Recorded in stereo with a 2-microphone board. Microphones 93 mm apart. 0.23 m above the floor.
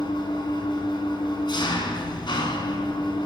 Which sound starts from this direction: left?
An engine running, at 0.0 s.